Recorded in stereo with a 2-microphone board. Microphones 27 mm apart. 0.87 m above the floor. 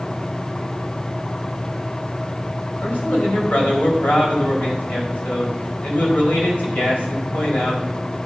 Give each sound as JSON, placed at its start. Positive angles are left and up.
{"t": 2.8, "sound": "a man speaking", "side_deg": 85, "distance_m": 4.0}